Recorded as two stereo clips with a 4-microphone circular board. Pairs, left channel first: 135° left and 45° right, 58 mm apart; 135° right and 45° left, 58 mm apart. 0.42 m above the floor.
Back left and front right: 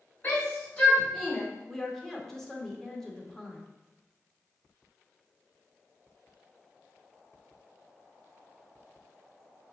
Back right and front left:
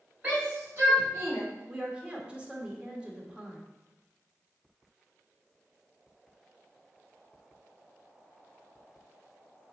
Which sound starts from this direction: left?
A shout, at 0.2 s.